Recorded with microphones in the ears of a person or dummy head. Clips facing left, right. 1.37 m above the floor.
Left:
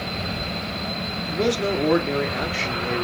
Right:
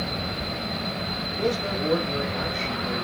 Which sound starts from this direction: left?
A man speaking, at 1.3 s.